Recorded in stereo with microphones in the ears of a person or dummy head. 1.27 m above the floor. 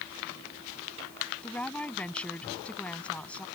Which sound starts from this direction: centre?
A woman speaking, at 1.4 s.